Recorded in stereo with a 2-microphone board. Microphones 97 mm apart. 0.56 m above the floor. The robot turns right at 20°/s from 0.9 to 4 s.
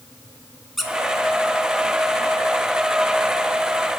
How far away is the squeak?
About 0.5 m.